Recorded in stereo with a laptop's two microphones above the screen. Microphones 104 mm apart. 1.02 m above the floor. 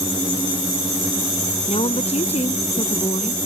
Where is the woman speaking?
90° left.